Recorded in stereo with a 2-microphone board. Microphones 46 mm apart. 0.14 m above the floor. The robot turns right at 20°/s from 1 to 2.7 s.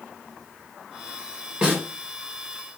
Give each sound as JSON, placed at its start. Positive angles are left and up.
{"t": 1.6, "sound": "a snare drum", "side_deg": -15, "distance_m": 1.4}